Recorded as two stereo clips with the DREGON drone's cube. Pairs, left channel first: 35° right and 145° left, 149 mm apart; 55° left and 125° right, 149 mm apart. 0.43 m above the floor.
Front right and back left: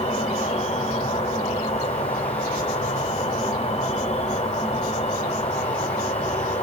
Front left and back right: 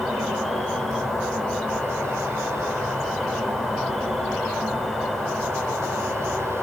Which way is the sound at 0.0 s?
35° right.